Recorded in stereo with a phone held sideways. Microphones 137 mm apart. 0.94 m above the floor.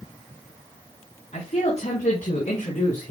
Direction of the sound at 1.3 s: 60° left (ahead or behind).